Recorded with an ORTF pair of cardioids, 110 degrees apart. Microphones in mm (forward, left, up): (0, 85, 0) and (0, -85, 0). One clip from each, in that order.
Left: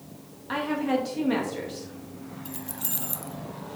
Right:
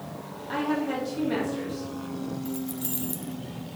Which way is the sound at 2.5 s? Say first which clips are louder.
Right 3 dB; 15° left.